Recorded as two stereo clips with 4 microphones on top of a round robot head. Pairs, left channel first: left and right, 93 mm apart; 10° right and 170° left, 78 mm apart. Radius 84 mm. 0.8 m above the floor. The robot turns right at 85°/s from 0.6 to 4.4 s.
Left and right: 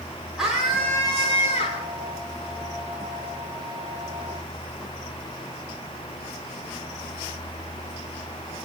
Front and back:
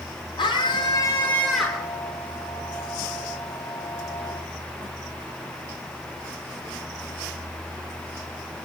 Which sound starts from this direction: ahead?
A scream, at 0.4 s.